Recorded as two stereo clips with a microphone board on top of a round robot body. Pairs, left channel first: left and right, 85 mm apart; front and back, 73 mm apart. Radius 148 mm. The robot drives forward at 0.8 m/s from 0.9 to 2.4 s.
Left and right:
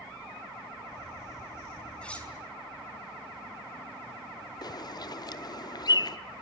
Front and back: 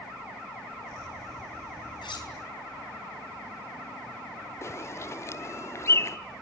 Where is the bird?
50° left, 1.0 m.